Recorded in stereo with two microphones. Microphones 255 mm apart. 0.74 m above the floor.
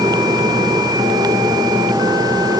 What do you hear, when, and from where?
Only background noise.